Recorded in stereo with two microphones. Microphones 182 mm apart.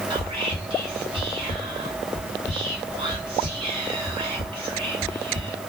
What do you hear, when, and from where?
0.1 s whispering: 25° right (ahead or behind), 1.3 m